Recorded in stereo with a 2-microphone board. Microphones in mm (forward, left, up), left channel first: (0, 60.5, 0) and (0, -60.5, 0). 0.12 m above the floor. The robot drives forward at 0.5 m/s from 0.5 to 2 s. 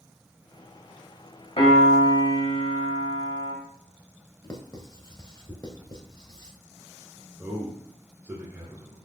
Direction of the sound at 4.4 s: 35° left (ahead or behind).